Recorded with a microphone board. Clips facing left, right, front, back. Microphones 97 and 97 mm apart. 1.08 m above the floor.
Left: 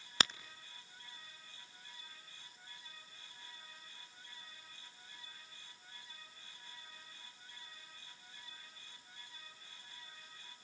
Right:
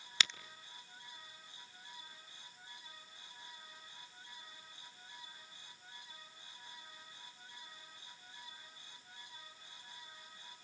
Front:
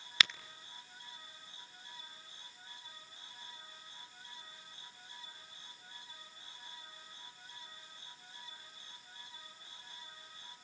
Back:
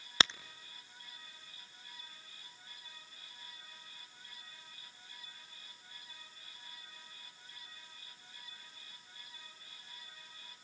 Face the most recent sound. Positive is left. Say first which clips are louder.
# left 3 dB, back 2 dB
turn(degrees=125)